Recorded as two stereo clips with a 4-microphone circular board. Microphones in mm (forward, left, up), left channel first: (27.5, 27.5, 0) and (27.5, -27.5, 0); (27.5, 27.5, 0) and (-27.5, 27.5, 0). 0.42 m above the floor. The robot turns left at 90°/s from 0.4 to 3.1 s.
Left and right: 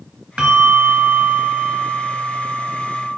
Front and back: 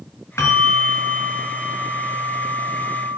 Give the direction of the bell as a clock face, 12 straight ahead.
1 o'clock.